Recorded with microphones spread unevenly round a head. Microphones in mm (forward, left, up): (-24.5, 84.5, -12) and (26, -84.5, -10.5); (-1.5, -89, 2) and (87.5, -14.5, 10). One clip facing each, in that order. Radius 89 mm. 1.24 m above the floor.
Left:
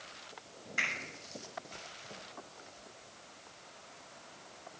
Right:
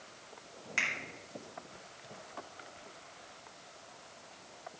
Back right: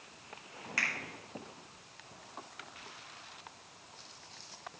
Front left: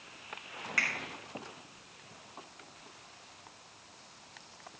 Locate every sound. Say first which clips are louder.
0.8 s a finger snap: even, front left 1 dB; 80° right, 4 m